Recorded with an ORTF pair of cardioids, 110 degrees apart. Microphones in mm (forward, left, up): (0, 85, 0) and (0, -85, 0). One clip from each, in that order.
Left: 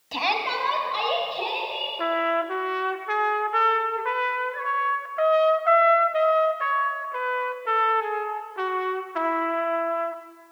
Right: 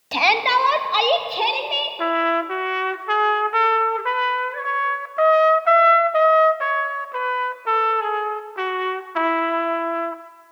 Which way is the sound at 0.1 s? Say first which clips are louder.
Right 8 dB; 35° right.